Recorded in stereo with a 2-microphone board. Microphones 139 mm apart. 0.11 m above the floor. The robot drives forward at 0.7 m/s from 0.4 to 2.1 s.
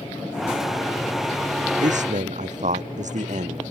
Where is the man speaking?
60° right (ahead or behind).